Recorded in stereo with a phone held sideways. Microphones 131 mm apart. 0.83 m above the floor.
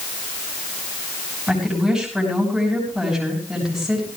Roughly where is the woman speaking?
Centre.